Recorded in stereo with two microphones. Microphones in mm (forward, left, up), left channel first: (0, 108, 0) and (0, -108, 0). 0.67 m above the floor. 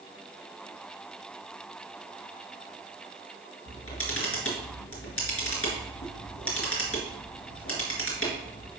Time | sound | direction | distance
3.7 | a camera shutter | 85° left | 3.5 m